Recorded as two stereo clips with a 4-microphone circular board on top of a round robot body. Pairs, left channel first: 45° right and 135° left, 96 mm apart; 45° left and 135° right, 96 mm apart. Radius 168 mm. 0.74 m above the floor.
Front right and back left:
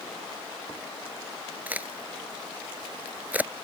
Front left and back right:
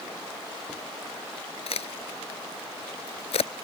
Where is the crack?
60° left.